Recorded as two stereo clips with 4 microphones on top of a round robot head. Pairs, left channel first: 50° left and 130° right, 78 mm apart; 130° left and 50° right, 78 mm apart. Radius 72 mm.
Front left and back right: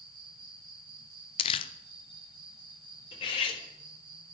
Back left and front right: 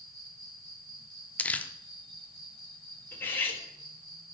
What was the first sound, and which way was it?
An insect, 150° right.